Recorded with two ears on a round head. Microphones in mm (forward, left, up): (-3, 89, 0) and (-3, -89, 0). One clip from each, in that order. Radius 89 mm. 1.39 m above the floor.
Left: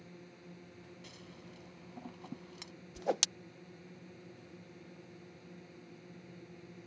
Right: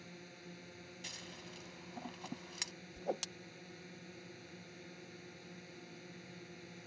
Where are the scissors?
60° right (ahead or behind).